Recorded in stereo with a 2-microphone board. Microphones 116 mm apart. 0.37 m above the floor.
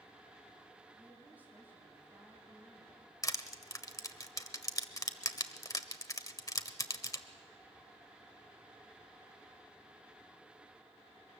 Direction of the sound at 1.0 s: 15° right (ahead or behind).